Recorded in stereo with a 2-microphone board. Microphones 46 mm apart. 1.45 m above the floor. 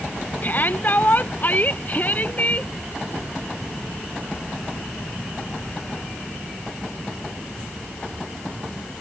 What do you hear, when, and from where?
0.4 s a shout: 45° left (ahead or behind); by 2.7 s 35° left (ahead or behind)